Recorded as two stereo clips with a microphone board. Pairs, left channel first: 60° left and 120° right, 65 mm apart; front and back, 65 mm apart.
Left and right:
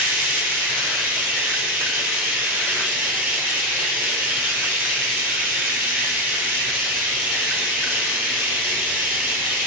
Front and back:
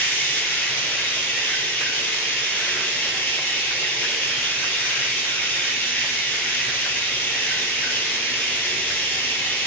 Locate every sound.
0.0 s running water: 65° right, 0.8 m